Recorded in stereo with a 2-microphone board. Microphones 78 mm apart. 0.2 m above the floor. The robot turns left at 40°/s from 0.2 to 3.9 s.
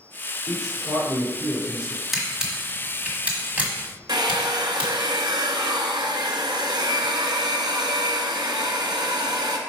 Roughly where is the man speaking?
Behind right.